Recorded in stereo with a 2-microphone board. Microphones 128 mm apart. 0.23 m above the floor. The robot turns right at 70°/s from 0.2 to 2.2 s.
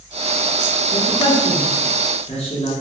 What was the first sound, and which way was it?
A woman speaking, 15° left (ahead or behind).